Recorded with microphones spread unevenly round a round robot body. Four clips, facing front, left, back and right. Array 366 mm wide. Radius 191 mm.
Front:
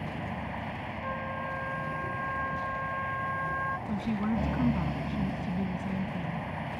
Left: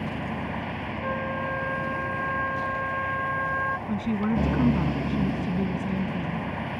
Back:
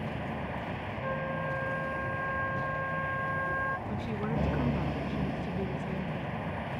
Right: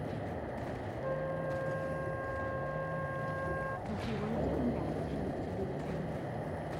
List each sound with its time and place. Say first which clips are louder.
0.0 s a vehicle: left 7 dB, even; 115° left
1.0 s a flute: left 6 dB, back 2 dB; 125° left
3.9 s a woman speaking: left 10 dB, front 3 dB; 85° left